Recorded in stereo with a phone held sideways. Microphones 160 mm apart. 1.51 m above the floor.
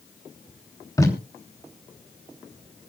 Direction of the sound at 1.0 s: 20° left (ahead or behind).